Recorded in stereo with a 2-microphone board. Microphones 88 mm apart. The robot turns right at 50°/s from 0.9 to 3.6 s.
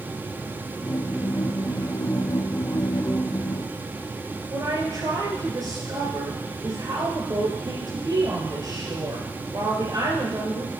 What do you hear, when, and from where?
4.5 s a woman speaking: 50° right (ahead or behind), 2.5 m